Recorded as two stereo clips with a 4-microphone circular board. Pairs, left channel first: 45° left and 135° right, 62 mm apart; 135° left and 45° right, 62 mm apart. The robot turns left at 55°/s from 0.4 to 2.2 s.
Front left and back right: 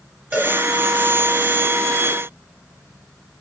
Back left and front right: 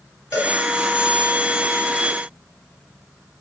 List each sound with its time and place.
0.3 s a cowbell: 160° left, 1.0 m; by 0.5 s 150° left, 1.0 m